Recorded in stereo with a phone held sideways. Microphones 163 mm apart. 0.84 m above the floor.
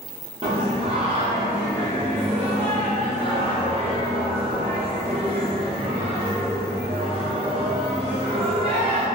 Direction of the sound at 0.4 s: 35° right (ahead or behind).